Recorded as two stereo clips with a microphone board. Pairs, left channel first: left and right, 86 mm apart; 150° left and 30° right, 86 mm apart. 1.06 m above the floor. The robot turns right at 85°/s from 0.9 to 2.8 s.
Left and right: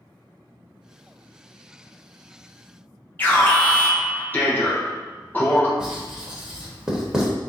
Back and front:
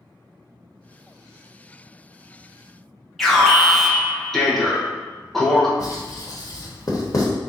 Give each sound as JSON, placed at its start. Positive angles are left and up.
{"t": 3.2, "sound": "an alarm", "azimuth_deg": 65, "distance_m": 0.8}
{"t": 5.8, "sound": "writing", "azimuth_deg": -170, "distance_m": 0.9}